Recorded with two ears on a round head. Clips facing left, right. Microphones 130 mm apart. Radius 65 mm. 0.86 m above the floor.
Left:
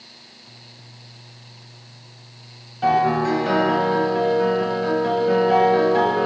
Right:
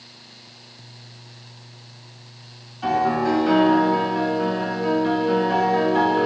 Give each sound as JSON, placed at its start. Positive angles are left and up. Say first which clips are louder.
{"t": 2.8, "sound": "a piano", "louder": "left 2 dB", "side_deg": 70, "distance_m": 1.8}